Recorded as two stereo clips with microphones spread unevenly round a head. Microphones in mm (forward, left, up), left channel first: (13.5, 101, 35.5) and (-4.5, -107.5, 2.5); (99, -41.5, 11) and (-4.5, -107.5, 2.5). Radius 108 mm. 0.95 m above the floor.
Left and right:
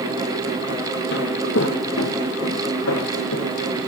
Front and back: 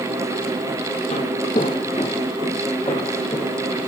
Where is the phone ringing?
No phone ringing in this recording.